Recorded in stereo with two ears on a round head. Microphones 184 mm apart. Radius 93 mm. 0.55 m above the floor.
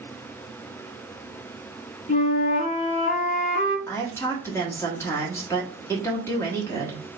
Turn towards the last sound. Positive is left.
turn(degrees=15)  # may be behind; listen again after turning